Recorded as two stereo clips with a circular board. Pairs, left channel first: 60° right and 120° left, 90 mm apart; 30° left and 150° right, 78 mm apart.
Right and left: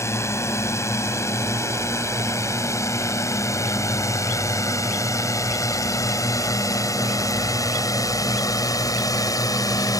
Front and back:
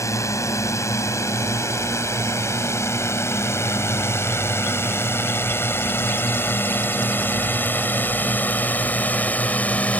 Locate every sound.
0.0 s a drone: 10° right; by 10.0 s 35° right